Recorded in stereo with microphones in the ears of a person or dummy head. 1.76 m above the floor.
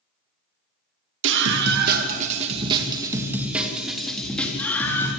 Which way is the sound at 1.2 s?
75° right (ahead or behind).